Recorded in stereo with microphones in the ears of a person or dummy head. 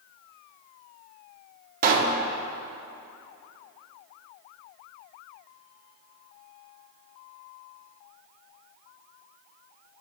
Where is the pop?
50° right (ahead or behind), 1.0 m.